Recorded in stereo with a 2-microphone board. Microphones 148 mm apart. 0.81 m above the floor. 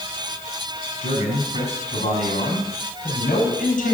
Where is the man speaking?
50° left (ahead or behind), 6 m; by 4.0 s 60° left (ahead or behind), 4.5 m.